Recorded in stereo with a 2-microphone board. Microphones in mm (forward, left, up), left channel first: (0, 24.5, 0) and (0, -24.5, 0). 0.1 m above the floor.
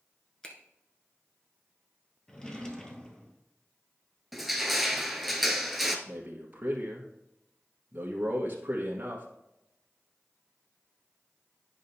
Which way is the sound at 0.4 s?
15° left (ahead or behind).